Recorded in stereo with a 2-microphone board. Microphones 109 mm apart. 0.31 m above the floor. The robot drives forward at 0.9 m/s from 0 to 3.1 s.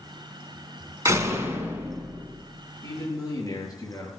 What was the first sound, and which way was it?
A door slam, 30° right (ahead or behind).